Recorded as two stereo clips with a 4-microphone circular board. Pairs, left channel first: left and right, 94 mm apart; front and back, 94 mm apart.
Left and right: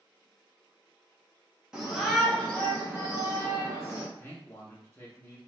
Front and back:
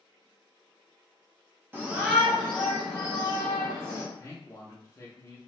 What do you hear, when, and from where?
1.7 s a shout: 160° right, 0.9 m; by 4.0 s 45° left, 1.4 m
4.2 s a man speaking: 40° left, 0.6 m